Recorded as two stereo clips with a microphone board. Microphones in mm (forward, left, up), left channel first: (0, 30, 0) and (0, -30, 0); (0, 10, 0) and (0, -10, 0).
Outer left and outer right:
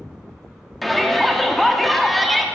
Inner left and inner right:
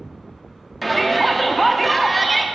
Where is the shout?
Centre (ahead or behind), 0.7 m.